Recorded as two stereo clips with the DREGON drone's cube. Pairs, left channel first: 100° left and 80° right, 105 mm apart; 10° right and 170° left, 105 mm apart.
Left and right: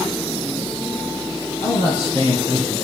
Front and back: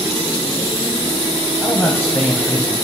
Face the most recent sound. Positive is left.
turn(degrees=60)